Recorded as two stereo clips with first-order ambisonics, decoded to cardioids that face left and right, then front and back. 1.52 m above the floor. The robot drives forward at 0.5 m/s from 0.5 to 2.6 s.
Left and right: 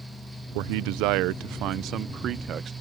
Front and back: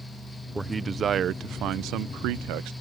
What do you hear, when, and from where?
0.6 s a man speaking: 95° right; by 2.7 s 145° right